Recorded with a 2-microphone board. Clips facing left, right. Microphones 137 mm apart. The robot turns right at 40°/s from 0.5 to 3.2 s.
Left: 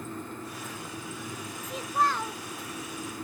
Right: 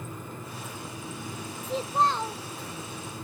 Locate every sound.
1.6 s a child speaking: 55° right, 0.5 m; by 2.4 s 25° right, 0.5 m